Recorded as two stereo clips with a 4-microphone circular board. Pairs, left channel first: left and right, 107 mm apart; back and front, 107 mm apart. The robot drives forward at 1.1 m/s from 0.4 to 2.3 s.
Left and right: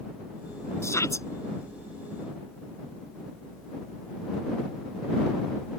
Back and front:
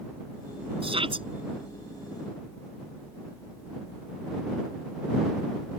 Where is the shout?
30° left.